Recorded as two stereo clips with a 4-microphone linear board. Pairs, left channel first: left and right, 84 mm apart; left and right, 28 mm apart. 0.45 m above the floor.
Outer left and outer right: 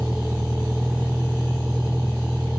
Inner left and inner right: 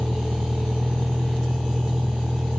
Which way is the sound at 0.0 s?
5° right (ahead or behind).